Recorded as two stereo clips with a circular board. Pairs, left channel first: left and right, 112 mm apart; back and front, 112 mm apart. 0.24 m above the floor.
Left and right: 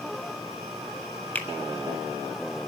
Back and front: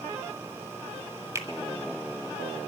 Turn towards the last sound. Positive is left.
turn(degrees=30)